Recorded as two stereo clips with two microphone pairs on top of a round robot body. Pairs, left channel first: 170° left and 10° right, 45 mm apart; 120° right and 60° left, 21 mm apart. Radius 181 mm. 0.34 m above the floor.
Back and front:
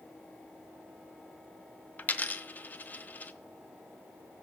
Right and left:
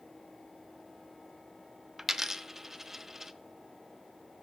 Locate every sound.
2.0 s a dropped coin: 125° left, 0.7 m